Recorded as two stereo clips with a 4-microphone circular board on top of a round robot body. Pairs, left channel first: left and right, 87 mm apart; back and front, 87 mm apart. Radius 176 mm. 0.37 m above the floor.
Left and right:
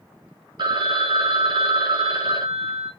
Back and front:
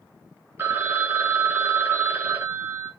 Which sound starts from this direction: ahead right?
A phone ringing, at 0.6 s.